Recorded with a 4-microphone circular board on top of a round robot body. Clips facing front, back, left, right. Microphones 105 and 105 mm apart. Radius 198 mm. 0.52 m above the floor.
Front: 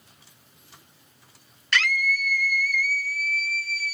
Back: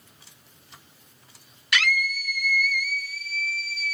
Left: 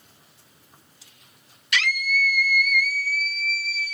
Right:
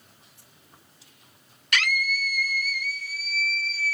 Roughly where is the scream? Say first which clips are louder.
Front 1 dB, left 2 dB; right.